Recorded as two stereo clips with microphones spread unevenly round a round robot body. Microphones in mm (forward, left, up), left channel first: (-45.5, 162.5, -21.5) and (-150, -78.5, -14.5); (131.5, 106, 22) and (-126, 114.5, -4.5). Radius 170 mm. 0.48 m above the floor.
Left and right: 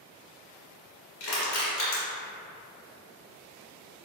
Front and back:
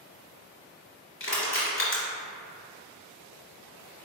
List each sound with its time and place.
1.2 s crushing: 40° left, 1.5 m